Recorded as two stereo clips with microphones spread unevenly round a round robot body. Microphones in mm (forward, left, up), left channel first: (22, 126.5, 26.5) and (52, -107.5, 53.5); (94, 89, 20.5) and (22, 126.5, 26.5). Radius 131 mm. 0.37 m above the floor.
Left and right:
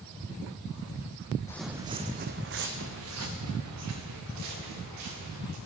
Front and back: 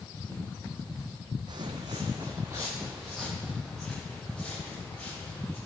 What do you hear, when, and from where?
1.5 s footsteps: straight behind, 0.6 m; by 5.6 s 110° right, 3.5 m